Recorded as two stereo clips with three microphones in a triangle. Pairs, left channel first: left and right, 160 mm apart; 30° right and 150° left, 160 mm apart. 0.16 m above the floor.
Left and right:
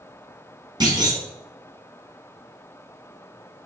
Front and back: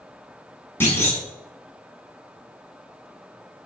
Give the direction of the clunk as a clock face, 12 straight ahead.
3 o'clock.